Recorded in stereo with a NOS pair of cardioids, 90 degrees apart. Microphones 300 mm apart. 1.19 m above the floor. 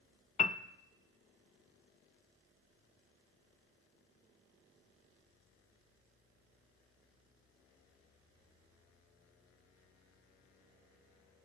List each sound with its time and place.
0.4 s a piano: 25° left, 0.6 m